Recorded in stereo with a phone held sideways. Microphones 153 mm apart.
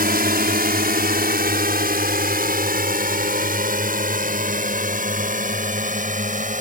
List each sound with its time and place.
0.0 s a drone: 80° right; by 6.6 s 60° right (ahead or behind)